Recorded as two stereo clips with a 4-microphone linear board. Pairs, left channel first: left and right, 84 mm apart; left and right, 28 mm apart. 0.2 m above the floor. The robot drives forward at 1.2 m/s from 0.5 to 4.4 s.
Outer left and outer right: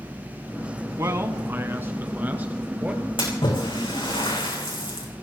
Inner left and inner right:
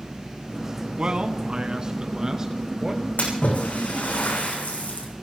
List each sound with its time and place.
1.0 s a man speaking: 35° right (ahead or behind), 1.6 m; by 3.0 s 15° right (ahead or behind), 3.5 m
3.2 s a splash: 70° left (ahead or behind), 6.5 m; by 5.1 s 85° left, 6 m